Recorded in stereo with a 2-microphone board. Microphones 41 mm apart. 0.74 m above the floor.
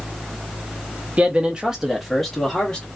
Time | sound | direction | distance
1.2 | a man speaking | 30° right (ahead or behind) | 0.9 m